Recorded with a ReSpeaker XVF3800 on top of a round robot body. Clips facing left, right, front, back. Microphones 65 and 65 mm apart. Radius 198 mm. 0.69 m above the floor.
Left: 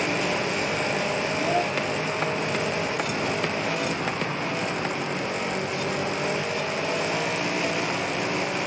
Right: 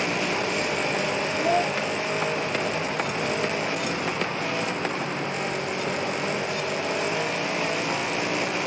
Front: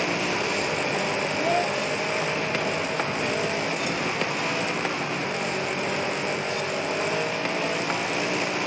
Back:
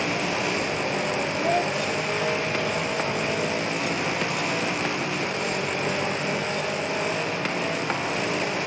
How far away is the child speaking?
About 2 m.